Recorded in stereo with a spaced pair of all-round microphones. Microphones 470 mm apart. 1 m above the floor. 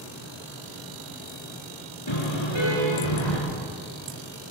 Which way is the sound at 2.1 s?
65° left (ahead or behind).